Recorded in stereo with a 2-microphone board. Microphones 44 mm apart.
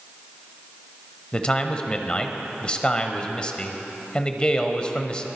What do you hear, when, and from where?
1.3 s a man speaking: 20° left (ahead or behind), 0.9 m